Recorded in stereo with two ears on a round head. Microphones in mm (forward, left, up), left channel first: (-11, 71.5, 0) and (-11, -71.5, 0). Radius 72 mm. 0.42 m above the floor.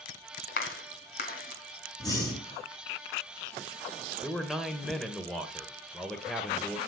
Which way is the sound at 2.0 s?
25° left (ahead or behind).